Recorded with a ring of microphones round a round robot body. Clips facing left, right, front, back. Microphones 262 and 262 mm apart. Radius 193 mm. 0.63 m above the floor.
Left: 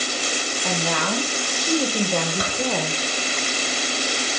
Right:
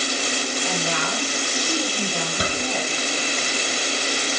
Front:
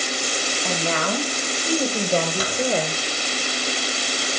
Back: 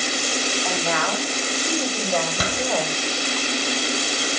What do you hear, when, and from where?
0.6 s a woman speaking: 55° left, 4.5 m; by 3.4 s 70° left, 2.5 m
2.4 s a door slam: 160° right, 3 m